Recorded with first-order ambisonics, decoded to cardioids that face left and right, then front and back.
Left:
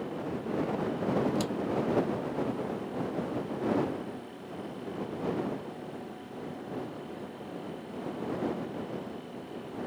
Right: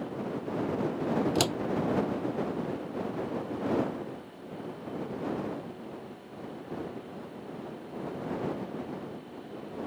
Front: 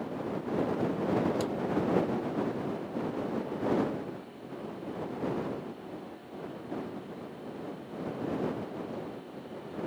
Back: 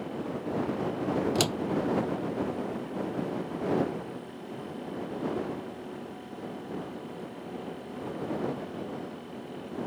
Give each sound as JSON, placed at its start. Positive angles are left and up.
{"t": 1.4, "sound": "a door slam", "azimuth_deg": -145}